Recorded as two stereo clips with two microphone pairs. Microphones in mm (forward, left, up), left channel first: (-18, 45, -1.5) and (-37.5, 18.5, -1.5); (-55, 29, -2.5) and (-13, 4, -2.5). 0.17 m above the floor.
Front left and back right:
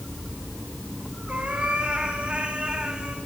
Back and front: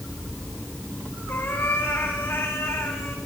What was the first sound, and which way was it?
A cat meowing, 175° right.